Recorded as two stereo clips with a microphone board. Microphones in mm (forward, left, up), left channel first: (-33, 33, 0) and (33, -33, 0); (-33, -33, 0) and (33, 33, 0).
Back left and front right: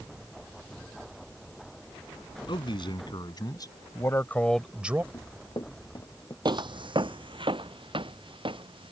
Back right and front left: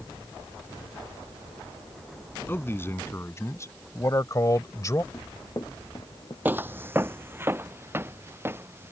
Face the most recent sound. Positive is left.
turn(degrees=-20)